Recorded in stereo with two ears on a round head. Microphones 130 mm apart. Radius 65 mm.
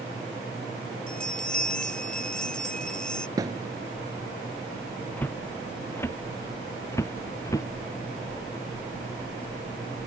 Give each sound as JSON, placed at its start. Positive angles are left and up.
{"t": 1.1, "sound": "a bell", "side_deg": 5}
{"t": 3.4, "sound": "a thud", "side_deg": -25}
{"t": 5.2, "sound": "footsteps", "side_deg": 15}